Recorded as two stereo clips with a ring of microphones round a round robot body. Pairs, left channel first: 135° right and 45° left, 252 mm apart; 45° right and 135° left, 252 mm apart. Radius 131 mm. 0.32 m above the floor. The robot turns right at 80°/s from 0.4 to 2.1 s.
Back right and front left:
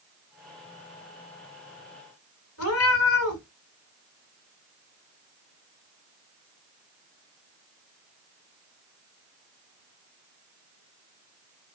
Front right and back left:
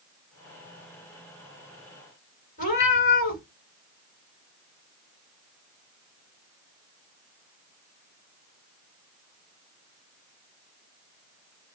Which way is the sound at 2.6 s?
105° right.